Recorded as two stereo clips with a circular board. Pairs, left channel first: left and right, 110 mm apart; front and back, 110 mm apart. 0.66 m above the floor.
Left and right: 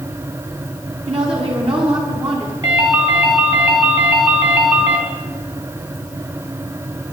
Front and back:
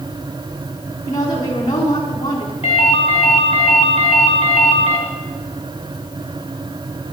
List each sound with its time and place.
1.1 s a woman speaking: 55° right, 7 m
2.6 s a ringtone: 35° right, 4 m